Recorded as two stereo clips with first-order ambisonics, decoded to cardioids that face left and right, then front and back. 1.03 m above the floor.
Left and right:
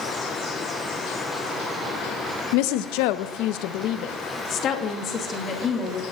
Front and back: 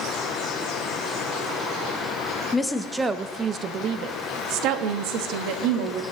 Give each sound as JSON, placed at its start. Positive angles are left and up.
{"t": 2.5, "sound": "a woman speaking", "azimuth_deg": 80, "distance_m": 0.8}